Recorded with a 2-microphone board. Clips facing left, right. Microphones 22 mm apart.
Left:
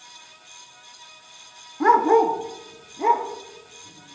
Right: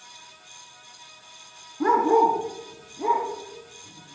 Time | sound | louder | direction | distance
1.8 | a dog barking | left 2 dB | 30° left (ahead or behind) | 1.0 m